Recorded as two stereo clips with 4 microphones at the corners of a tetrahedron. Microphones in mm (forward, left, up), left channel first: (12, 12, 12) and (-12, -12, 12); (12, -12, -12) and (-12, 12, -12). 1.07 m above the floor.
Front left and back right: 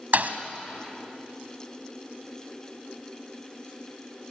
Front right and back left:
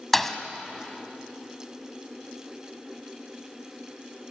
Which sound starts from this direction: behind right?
A thud, at 0.1 s.